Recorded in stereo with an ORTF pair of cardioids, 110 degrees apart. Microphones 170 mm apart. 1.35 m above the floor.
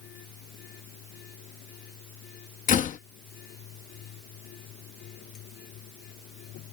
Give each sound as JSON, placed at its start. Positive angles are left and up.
{"t": 0.0, "sound": "a machine running", "azimuth_deg": 70}
{"t": 2.7, "sound": "a door slam", "azimuth_deg": 50}